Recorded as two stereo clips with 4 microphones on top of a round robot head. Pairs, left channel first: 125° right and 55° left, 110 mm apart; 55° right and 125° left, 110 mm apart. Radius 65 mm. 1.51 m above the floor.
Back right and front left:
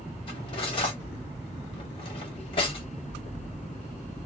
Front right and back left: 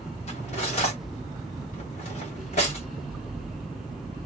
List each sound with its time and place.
0.3 s cutlery clinking: 85° right, 1.1 m